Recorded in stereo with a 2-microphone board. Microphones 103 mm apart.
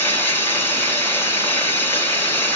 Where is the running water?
20° left (ahead or behind), 2 m.